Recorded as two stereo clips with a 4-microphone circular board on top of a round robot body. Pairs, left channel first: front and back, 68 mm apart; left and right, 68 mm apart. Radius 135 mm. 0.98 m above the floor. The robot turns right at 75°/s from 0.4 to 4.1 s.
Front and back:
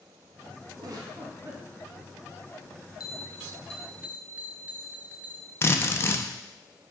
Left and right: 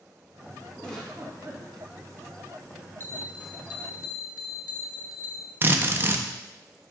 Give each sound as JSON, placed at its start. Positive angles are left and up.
{"t": 0.8, "sound": "a giggle", "azimuth_deg": 165, "distance_m": 2.0}
{"t": 3.0, "sound": "a bell", "azimuth_deg": 30, "distance_m": 0.8}
{"t": 5.6, "sound": "a drill", "azimuth_deg": -40, "distance_m": 1.1}